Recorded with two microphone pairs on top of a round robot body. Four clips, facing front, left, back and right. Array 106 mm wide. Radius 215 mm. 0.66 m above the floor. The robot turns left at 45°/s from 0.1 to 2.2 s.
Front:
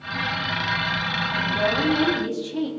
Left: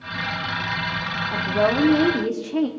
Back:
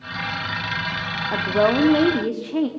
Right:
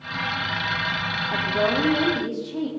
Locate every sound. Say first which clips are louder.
1.3 s a woman speaking: left 3 dB, back 6 dB; 175° right, 1.8 m; by 2.7 s 145° left, 1.8 m